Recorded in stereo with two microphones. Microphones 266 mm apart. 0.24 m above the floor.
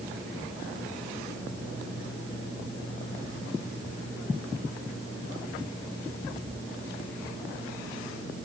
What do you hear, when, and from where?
Only background noise.